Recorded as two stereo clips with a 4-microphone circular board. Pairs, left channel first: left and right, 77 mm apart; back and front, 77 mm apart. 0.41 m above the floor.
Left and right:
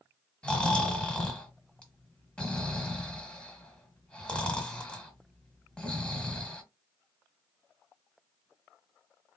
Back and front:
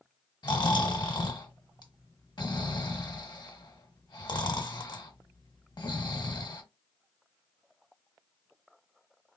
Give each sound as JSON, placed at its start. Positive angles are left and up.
{"t": 0.4, "sound": "snoring", "azimuth_deg": 165, "distance_m": 1.2}